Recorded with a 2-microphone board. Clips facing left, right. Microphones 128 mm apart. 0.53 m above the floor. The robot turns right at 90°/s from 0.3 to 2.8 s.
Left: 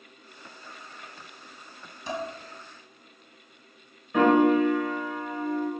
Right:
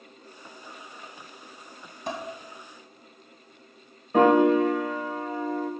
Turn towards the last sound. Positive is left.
turn(degrees=-40)  # may be behind; listen again after turning